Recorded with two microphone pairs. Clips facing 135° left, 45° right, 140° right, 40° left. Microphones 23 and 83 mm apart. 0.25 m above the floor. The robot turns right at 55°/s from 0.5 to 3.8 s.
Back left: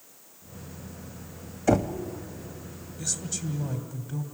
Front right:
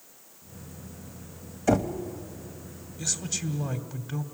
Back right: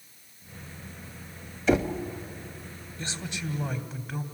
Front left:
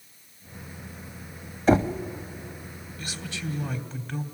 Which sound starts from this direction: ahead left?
Knocking, at 1.7 s.